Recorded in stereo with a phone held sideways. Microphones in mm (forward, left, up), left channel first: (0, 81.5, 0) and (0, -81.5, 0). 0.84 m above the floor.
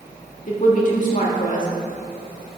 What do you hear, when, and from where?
0.5 s a woman speaking: 55° left (ahead or behind), 1.7 m